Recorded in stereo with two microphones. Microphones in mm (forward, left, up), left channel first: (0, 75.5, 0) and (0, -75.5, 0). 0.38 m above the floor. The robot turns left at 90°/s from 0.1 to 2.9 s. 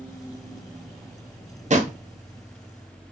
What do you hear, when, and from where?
1.7 s a drawer: 50° right (ahead or behind), 0.5 m; by 2.0 s 60° right (ahead or behind), 0.5 m